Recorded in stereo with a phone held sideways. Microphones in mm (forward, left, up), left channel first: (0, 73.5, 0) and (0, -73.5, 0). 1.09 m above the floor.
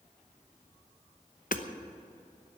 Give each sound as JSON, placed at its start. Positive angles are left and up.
{"t": 1.5, "sound": "hammering", "side_deg": 70, "distance_m": 0.9}